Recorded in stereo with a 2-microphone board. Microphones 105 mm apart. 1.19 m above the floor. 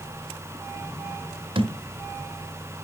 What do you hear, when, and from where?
1.6 s a thud: 50° right (ahead or behind), 1.3 m